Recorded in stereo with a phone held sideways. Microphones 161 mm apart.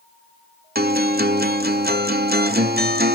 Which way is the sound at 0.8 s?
75° right (ahead or behind).